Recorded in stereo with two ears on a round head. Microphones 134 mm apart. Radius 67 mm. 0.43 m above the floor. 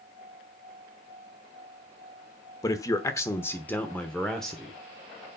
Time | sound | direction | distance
2.6 | a man speaking | 25° left (ahead or behind) | 1.1 m